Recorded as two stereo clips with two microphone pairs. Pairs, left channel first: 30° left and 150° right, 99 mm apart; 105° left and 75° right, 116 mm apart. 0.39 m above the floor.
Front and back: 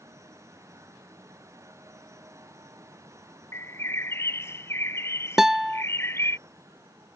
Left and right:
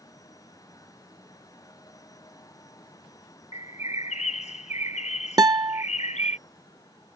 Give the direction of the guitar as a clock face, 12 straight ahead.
2 o'clock.